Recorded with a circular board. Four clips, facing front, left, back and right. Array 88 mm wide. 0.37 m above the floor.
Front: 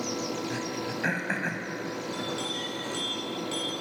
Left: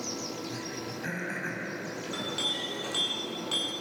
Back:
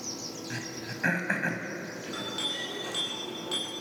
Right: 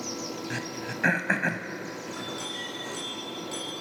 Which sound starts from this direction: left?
A clink, at 2.0 s.